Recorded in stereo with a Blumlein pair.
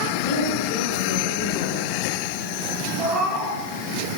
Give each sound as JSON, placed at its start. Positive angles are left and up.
{"t": 0.1, "sound": "a woman speaking", "azimuth_deg": 45, "distance_m": 6.5}
{"t": 3.0, "sound": "a cat meowing", "azimuth_deg": 0, "distance_m": 8.5}